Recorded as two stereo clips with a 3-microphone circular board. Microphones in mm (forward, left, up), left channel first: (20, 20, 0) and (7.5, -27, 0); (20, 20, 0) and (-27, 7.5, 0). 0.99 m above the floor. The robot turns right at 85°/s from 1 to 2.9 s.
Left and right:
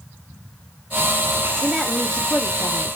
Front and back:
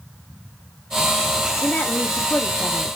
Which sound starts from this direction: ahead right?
A woman speaking, at 1.6 s.